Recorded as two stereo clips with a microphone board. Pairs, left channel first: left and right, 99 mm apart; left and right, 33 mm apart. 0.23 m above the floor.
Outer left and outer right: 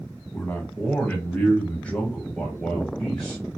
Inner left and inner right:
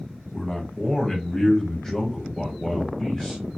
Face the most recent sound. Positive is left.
turn(degrees=5)  # may be behind; listen again after turning